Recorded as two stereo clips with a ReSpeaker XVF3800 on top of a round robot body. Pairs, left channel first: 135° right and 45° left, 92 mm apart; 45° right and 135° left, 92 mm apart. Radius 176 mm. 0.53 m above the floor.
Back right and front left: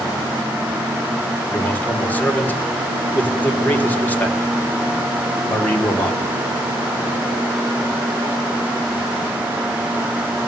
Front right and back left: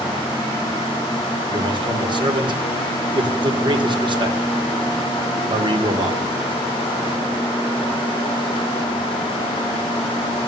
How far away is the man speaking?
About 2.5 m.